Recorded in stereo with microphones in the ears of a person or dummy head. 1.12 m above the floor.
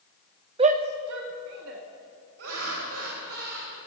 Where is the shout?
30° right (ahead or behind), 0.7 m; by 1.8 s 75° right (ahead or behind), 2 m.